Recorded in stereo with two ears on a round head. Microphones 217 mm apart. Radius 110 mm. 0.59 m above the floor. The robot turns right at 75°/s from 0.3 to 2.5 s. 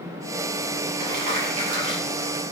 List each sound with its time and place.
1.0 s crumpling: 105° right, 5 m; by 2.3 s 5° right, 5 m